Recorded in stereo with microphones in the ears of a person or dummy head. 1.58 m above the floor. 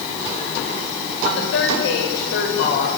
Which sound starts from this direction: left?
A woman speaking, at 1.2 s.